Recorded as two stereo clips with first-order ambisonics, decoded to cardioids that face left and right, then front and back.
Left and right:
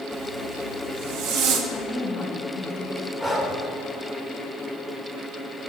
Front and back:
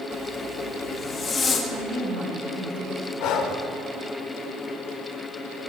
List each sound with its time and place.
0.1 s a zipper: 70° right, 1.9 m
1.7 s a woman speaking: 150° left, 4 m
3.2 s breathing: straight ahead, 1.5 m